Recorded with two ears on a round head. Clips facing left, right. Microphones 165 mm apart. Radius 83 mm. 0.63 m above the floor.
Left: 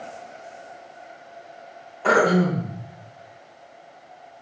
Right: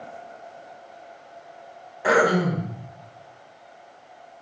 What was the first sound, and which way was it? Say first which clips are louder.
Throat clearing: left 1 dB; 10° right (ahead or behind).